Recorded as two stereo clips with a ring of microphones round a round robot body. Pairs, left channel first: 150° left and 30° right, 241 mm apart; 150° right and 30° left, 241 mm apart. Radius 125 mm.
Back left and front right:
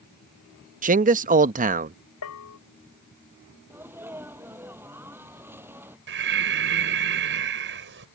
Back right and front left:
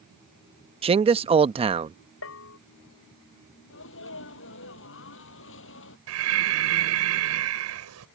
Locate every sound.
0.8 s a man speaking: 15° right
2.2 s a bell: 175° left
3.7 s a sneeze: 110° right
6.1 s breathing: 10° left